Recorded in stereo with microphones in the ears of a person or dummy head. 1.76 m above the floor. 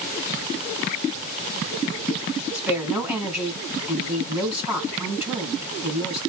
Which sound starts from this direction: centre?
A woman speaking, at 2.5 s.